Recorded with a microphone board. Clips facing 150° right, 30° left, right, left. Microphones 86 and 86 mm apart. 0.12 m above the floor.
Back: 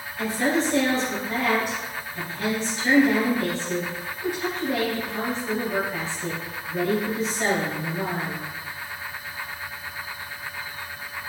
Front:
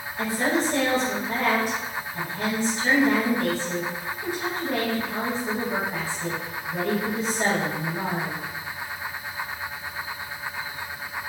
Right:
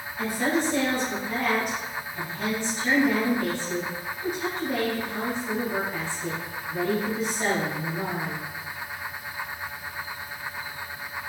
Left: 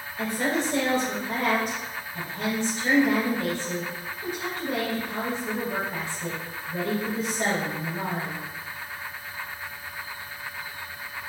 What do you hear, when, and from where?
0.2 s a woman speaking: 75° left, 2.0 m